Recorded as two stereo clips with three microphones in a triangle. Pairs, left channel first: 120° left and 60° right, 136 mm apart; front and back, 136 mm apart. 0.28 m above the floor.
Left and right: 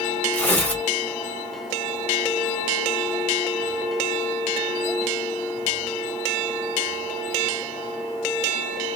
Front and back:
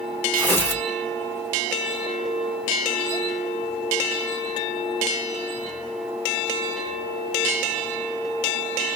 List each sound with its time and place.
0.3 s tearing paper: 55° left, 1.3 m